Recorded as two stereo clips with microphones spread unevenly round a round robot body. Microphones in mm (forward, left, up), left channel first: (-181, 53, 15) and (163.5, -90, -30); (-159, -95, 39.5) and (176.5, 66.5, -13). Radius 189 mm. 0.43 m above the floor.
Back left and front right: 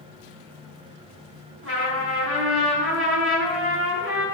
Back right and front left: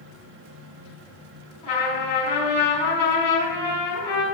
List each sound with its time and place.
1.6 s a trumpet: 75° right, 3.5 m